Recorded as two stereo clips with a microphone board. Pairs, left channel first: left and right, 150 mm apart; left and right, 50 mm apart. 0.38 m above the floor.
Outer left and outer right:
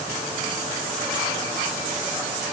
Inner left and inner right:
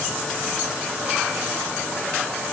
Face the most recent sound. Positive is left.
No sound to turn to.